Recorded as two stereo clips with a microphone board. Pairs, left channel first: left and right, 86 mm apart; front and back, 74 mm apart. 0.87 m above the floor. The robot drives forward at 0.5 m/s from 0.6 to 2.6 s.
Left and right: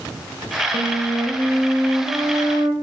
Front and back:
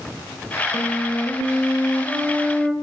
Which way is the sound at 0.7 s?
75° right.